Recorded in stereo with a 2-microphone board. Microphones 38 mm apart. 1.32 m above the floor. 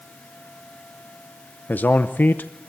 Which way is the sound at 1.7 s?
60° left (ahead or behind).